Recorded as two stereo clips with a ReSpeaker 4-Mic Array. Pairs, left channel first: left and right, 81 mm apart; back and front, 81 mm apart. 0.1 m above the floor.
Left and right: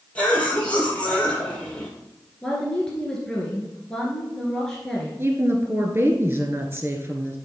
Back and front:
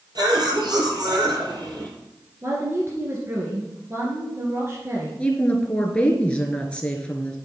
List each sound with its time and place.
0.1 s a cough: 20° left, 3.5 m
2.4 s a woman speaking: 15° left, 1.8 m
5.2 s a woman speaking: 115° right, 1.3 m